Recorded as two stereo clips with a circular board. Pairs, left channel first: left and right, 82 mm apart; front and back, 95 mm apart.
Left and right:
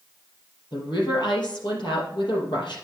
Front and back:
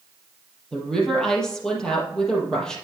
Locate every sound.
0.7 s a woman speaking: 85° left, 4 m